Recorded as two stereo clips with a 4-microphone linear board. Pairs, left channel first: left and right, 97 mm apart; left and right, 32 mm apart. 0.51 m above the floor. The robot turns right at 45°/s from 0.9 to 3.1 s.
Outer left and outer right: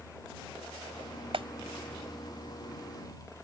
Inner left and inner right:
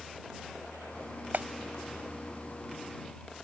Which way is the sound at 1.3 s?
75° right (ahead or behind).